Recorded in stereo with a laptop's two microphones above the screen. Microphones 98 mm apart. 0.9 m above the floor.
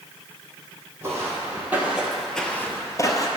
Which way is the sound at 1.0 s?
25° right (ahead or behind).